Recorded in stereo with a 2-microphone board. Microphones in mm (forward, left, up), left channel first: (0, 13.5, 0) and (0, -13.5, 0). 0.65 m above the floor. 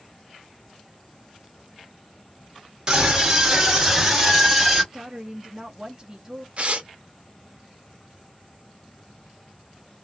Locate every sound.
2.9 s a scream: 15° right (ahead or behind), 1.3 m; by 4.8 s centre (ahead or behind), 1.7 m
4.9 s a woman speaking: 25° right (ahead or behind), 0.6 m
6.6 s tearing paper: 40° right (ahead or behind), 0.8 m